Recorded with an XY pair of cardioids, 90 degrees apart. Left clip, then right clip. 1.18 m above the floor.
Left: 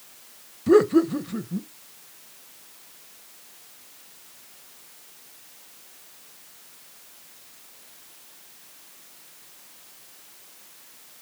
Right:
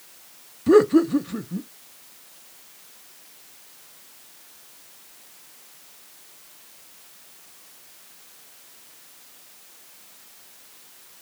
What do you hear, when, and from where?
0.7 s laughter: 10° right, 0.6 m